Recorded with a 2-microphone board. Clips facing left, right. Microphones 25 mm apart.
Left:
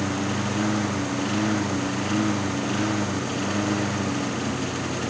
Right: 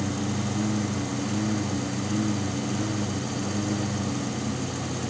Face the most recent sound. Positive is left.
turn(degrees=40)  # may be behind; listen again after turning